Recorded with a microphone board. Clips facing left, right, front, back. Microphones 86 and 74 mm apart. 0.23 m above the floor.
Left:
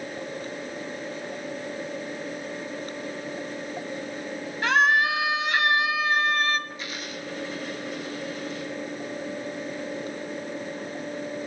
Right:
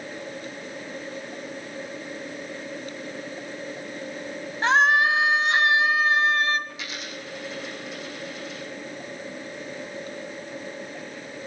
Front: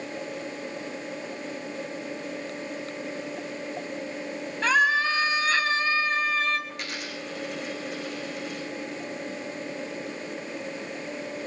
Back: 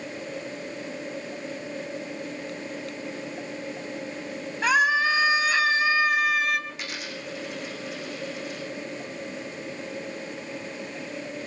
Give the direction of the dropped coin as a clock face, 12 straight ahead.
3 o'clock.